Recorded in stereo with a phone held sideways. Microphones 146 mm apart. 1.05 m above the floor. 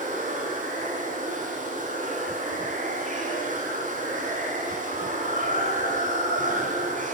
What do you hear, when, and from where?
0.0 s running water: 65° right (ahead or behind), 8 m